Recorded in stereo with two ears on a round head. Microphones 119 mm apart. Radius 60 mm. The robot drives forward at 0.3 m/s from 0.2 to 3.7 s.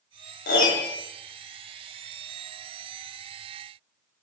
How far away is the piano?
About 0.5 m.